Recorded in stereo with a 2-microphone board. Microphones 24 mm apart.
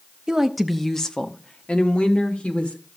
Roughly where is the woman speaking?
Right.